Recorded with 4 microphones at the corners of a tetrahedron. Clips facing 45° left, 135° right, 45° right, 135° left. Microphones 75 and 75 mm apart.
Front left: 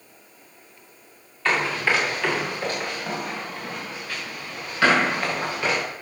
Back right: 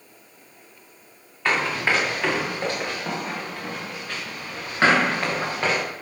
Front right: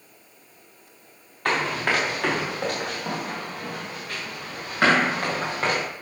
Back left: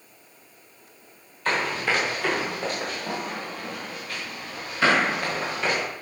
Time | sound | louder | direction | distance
1.4 | running footsteps | even, front right 1 dB | 60° right | 5.5 m